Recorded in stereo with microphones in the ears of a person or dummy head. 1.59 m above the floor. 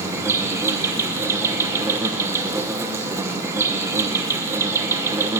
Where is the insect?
15° right (ahead or behind), 0.8 m.